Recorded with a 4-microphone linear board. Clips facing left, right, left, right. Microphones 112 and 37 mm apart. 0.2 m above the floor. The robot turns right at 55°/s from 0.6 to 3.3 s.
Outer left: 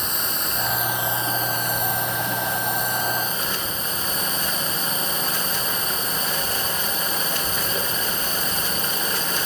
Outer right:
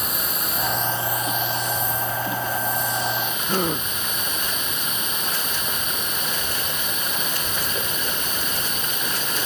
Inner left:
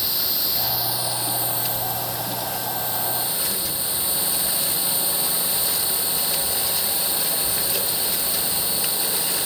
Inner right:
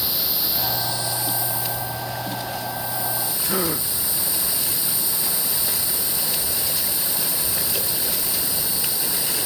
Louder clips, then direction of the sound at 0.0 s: Even, even; 5° right.